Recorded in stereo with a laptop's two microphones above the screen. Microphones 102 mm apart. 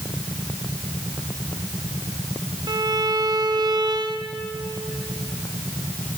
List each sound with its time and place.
2.7 s a violin: 45° right (ahead or behind), 1.0 m